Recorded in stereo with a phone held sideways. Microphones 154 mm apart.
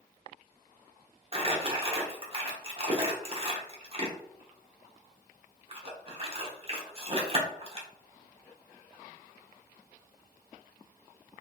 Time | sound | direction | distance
1.3 | crumpling | 40° right (ahead or behind) | 0.8 m